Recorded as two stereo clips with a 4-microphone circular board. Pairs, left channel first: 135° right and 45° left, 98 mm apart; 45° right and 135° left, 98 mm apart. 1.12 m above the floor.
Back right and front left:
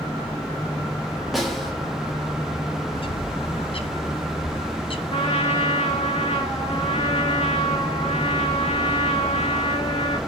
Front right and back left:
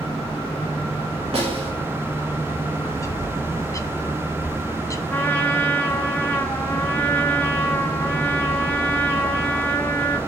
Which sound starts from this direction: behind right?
A trumpet, at 5.1 s.